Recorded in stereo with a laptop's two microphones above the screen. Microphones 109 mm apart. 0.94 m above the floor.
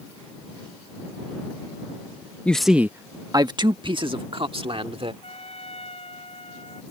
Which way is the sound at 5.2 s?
60° left (ahead or behind).